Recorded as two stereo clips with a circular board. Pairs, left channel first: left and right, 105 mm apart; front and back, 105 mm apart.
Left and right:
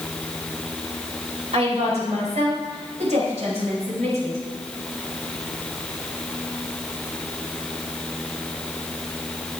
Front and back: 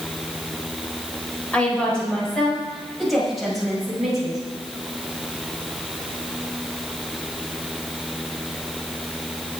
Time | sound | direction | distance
1.5 | a woman speaking | 80° right | 4.5 m